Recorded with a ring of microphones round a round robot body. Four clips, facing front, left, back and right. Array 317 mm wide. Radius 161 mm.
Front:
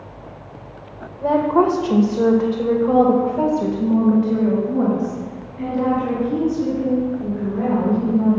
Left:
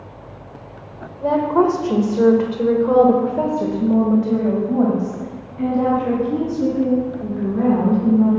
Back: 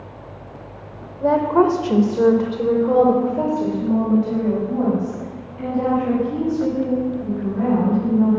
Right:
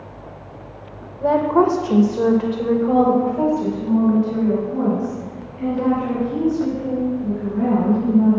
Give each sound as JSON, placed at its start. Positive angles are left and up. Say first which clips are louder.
{"t": 1.2, "sound": "a woman speaking", "louder": "even, even", "azimuth_deg": -140, "distance_m": 1.2}